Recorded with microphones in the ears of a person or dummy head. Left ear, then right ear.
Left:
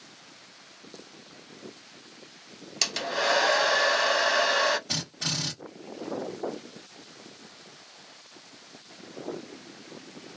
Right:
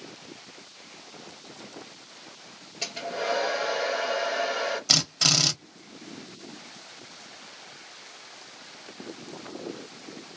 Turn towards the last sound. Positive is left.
turn(degrees=-75)  # may be behind; listen again after turning